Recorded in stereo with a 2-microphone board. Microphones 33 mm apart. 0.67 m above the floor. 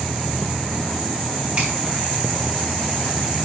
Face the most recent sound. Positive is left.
turn(degrees=-50)  # may be behind; listen again after turning